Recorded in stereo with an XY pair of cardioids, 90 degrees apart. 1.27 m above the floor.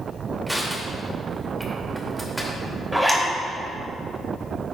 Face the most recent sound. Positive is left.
turn(degrees=-5)